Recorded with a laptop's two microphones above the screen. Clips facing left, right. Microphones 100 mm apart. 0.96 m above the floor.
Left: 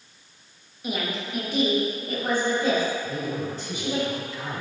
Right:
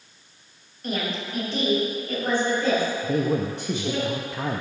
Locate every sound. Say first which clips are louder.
0.8 s a woman speaking: right 1 dB; 5° left (ahead or behind), 1.3 m; by 4.0 s 15° left (ahead or behind), 4 m
3.0 s a man speaking: right 6 dB; 65° right (ahead or behind), 0.7 m